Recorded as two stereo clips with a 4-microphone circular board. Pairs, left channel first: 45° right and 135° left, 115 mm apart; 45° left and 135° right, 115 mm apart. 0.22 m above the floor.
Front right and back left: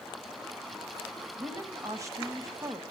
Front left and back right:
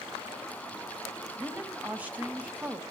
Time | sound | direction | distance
1.4 | a woman speaking | 160° left | 1.2 m